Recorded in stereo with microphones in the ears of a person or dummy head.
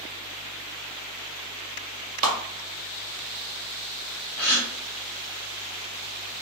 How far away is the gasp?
About 1.4 m.